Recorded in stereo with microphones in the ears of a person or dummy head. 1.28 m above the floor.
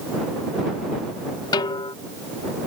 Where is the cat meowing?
No cat meowing in this recording.